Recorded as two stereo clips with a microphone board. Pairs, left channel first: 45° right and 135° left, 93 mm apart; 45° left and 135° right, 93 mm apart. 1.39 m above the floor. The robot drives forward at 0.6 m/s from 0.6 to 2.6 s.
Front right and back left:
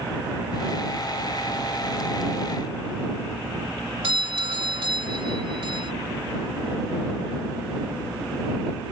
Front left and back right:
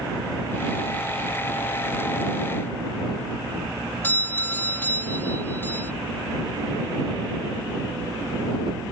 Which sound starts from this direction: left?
A doorbell, at 4.0 s.